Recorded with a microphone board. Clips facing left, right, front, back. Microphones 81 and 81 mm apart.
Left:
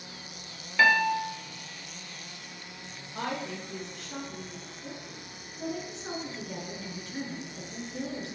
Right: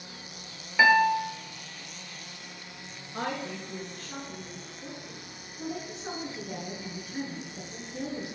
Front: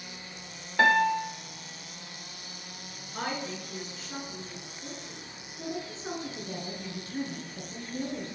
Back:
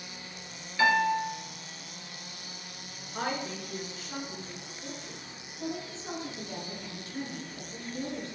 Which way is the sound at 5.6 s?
10° right.